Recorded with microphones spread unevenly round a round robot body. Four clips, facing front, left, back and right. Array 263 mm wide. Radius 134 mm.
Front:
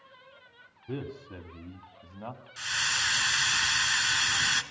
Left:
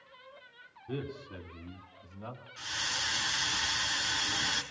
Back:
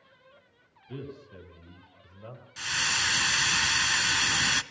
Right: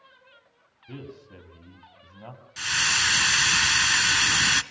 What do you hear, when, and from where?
0.9 s a man speaking: straight ahead, 3 m; by 2.4 s 20° right, 3 m
2.6 s a hiss: 105° right, 1.0 m